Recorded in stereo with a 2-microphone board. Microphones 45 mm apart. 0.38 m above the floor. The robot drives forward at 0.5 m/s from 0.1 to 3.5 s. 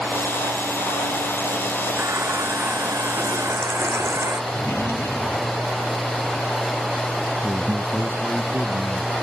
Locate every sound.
2.0 s a running tap: 85° right
4.5 s a drawer: 70° left (ahead or behind)
7.4 s a man speaking: 50° right (ahead or behind)